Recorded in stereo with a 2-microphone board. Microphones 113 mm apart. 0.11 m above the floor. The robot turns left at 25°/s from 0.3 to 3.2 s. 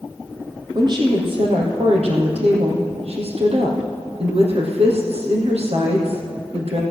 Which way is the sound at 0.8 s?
45° right.